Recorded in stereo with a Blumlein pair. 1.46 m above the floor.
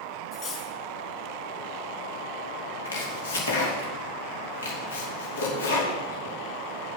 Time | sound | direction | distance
0.3 | cutlery clinking | 40° left | 3.5 m
2.9 | chopping | 65° left | 2.5 m